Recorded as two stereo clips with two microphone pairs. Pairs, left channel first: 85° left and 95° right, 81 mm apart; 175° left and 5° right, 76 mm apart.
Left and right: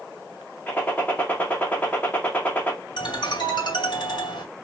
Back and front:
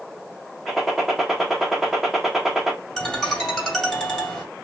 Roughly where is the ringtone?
Left.